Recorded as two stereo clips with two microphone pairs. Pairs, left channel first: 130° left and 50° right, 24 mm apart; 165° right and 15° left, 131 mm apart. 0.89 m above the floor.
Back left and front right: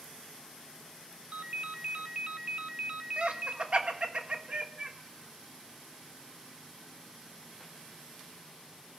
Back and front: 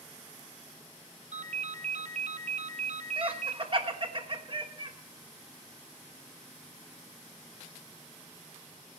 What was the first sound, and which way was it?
A ringtone, 10° right.